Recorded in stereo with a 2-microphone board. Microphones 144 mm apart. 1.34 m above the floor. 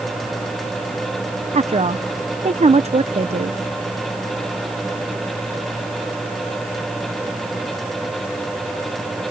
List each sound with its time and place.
1.5 s a woman speaking: 50° right (ahead or behind)